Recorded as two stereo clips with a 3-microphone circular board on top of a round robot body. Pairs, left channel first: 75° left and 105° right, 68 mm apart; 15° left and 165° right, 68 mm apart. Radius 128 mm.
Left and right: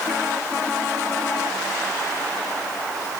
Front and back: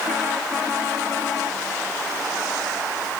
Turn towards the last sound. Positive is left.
No sound to turn to.